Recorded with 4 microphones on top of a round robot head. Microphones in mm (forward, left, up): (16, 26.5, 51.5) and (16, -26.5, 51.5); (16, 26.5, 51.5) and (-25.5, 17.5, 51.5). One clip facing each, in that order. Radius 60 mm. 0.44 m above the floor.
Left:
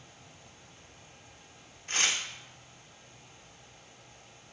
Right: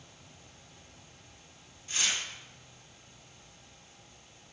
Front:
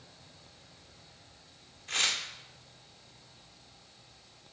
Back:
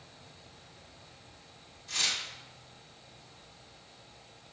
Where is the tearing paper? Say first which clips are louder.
Left 3 dB, front 2 dB; 55° left, 0.6 m.